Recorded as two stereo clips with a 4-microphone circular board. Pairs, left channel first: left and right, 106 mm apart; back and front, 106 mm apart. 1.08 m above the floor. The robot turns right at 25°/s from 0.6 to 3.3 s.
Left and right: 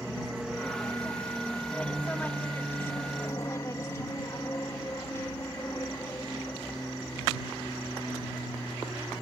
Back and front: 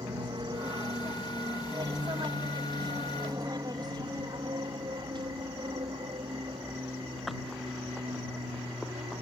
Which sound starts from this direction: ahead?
An aircraft, at 0.0 s.